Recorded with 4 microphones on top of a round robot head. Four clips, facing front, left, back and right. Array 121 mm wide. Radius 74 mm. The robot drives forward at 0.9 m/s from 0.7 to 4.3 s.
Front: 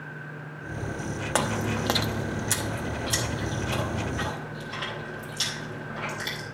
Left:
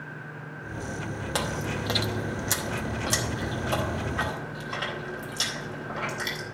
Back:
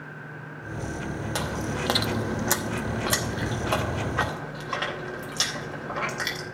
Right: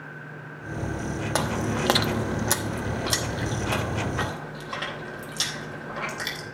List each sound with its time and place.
1.4 s chewing: 40° right, 0.7 m; by 6.4 s 170° right, 2 m